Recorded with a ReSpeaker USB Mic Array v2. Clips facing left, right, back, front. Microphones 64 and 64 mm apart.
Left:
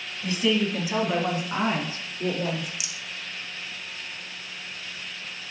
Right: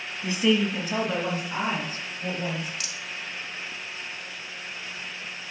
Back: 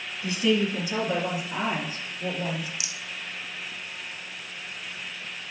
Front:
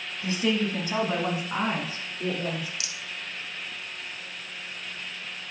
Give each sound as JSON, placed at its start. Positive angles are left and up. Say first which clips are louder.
{"t": 0.2, "sound": "a woman speaking", "louder": "right 1 dB, back 2 dB", "azimuth_deg": -40, "distance_m": 1.3}
{"t": 2.8, "sound": "a rattle", "louder": "right 1 dB, even", "azimuth_deg": 160, "distance_m": 0.5}